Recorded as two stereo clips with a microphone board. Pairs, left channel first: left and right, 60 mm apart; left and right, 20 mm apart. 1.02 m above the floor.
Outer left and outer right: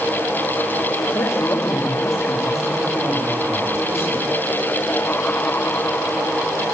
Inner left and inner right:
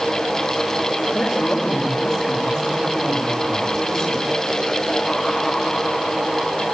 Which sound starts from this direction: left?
A woman speaking, at 1.1 s.